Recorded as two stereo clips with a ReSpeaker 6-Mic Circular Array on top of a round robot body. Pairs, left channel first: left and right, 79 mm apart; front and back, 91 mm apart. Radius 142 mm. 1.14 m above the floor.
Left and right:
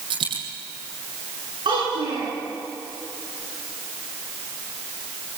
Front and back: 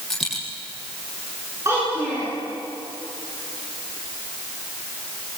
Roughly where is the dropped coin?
Right.